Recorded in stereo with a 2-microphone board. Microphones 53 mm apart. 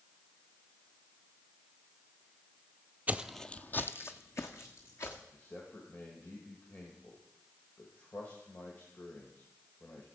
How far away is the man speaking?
About 2 m.